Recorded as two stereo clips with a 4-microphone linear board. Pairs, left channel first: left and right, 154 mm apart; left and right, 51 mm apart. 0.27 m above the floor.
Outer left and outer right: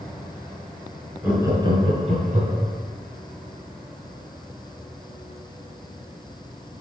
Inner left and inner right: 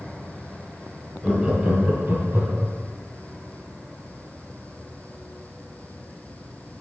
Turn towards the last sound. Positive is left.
turn(degrees=-60)  # may be behind; listen again after turning